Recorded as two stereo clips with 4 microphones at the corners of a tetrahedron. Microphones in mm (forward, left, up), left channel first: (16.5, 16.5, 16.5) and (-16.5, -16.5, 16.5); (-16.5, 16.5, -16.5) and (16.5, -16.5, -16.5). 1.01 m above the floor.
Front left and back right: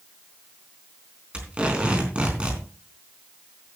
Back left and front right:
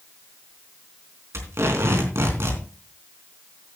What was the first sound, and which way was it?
Tape being pulled, 65° right.